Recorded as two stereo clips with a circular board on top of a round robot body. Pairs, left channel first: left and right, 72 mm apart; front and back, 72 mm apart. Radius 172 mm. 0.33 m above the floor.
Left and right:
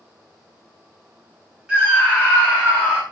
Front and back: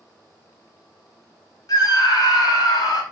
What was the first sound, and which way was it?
A scream, 15° right.